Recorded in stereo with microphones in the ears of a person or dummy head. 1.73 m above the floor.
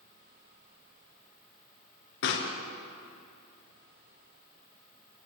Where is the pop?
65° left (ahead or behind), 3.5 m.